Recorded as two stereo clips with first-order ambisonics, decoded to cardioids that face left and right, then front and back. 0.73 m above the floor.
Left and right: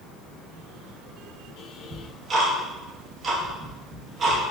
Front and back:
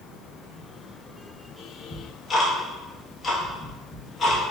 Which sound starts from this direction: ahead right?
Ticking, at 1.9 s.